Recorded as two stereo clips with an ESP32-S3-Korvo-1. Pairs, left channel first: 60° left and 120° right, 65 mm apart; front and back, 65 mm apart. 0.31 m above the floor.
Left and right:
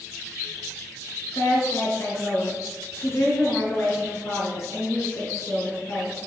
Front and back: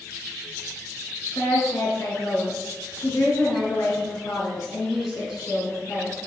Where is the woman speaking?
15° left, 5 m.